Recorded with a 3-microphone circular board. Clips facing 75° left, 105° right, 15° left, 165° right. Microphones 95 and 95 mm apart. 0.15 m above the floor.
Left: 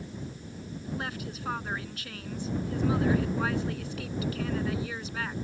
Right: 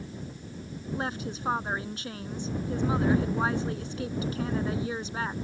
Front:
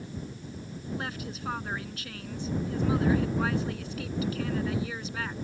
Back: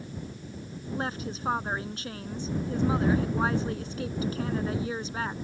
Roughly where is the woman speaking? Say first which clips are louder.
Right 5 dB, back 4 dB; behind right.